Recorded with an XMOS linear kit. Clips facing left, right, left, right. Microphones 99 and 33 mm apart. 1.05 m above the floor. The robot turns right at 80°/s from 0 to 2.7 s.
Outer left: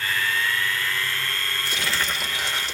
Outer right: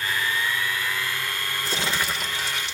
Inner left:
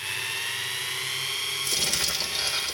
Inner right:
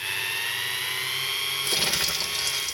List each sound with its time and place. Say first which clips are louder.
1.6 s crumpling: outer right 1 dB, inner right 2 dB; 40° right, 1.8 m; by 2.8 s 45° left, 1.8 m